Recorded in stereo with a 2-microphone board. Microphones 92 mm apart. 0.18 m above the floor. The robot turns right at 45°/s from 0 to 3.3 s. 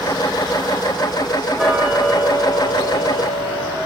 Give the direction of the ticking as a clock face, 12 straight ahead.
12 o'clock.